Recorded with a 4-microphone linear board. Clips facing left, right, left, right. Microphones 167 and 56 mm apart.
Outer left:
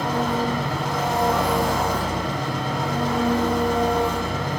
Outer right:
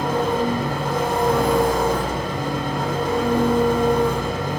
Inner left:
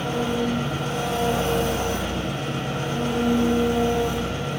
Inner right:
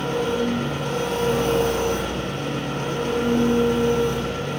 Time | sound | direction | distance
0.0 | an engine running | 55° right (ahead or behind) | 2.5 m